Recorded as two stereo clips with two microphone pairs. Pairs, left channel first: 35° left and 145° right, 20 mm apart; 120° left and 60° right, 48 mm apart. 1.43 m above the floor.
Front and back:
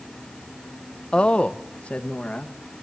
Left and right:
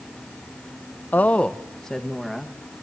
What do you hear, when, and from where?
1.1 s a woman speaking: 65° left, 0.8 m; by 2.5 s 30° left, 1.8 m